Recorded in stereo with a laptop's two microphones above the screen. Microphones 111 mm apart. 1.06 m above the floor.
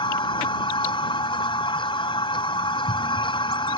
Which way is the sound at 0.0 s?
50° left (ahead or behind).